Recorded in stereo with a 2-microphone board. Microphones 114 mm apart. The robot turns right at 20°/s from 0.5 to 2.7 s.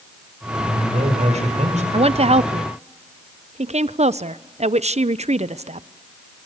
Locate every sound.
0.6 s a man speaking: 65° right (ahead or behind), 5.5 m; by 1.8 s 90° right, 5.5 m
1.9 s a woman speaking: 60° right (ahead or behind), 0.7 m; by 5.9 s 70° right (ahead or behind), 0.7 m